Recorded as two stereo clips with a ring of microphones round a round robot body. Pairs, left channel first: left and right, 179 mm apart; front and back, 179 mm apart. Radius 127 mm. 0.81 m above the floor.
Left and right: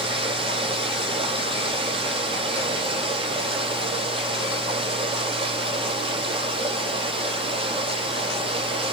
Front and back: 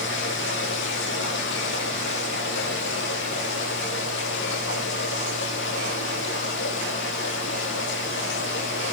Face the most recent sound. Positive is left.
turn(degrees=-35)